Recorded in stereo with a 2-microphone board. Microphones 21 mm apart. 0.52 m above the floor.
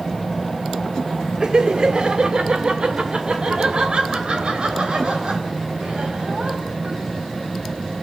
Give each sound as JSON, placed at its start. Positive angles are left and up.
{"t": 1.4, "sound": "laughter", "side_deg": -40, "distance_m": 1.4}